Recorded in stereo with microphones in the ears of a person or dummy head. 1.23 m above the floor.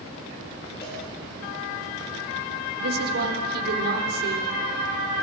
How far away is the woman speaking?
About 4.5 m.